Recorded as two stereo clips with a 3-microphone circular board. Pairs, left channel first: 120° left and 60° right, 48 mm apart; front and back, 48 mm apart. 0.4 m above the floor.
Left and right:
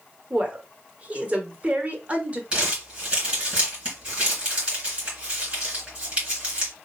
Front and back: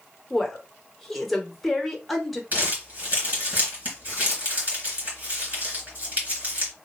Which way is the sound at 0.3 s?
85° right.